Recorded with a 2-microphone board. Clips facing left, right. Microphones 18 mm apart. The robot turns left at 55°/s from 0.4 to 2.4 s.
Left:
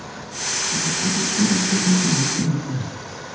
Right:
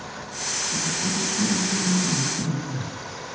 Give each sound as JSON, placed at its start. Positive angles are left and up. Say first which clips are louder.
{"t": 0.7, "sound": "a cough", "louder": "left 4 dB", "azimuth_deg": -175, "distance_m": 9.0}